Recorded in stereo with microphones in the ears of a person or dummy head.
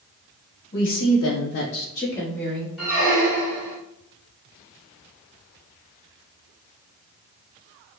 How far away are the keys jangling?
No keys jangling in this recording.